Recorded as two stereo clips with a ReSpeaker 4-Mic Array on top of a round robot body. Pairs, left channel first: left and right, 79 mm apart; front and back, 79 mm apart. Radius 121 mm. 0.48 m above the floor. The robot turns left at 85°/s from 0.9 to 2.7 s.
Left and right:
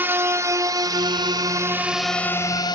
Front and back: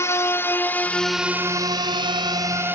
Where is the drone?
35° right; by 2.8 s 120° left.